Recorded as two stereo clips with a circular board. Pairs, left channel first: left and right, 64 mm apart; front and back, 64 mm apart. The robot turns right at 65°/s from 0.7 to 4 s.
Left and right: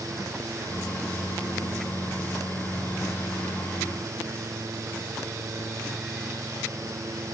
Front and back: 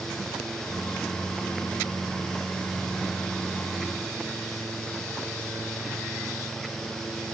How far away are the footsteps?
No footsteps in this recording.